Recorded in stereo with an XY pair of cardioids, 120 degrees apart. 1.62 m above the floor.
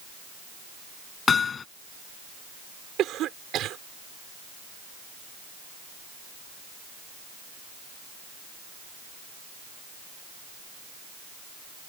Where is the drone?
No drone in this recording.